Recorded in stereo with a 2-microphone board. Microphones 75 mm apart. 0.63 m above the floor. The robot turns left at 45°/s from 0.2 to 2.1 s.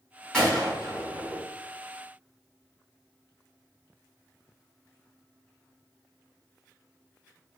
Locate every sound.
0.3 s a gunshot: 10° left (ahead or behind), 1.5 m; by 1.4 s 55° left (ahead or behind), 1.5 m